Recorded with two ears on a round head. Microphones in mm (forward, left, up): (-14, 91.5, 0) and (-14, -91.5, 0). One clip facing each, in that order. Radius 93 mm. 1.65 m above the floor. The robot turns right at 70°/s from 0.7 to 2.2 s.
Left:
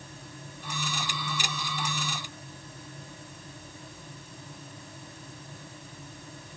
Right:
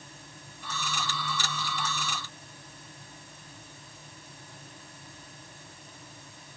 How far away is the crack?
I don't hear a crack.